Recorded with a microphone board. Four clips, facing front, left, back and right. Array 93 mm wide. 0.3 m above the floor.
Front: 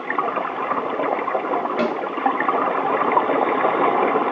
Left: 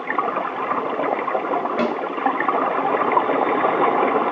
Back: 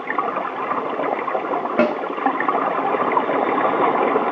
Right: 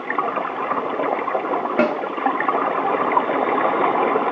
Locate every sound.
1.8 s a snare drum: 140° right, 0.6 m